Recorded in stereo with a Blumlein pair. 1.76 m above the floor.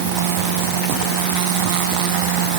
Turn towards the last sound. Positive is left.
No sound to turn to.